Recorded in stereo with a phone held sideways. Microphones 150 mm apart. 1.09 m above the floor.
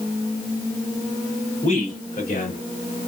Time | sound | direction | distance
1.6 | a man speaking | 55° left (ahead or behind) | 3.5 m